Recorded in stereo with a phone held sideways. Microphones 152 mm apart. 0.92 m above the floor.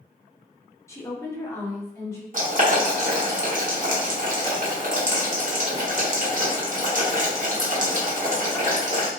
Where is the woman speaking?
20° left (ahead or behind), 0.7 m.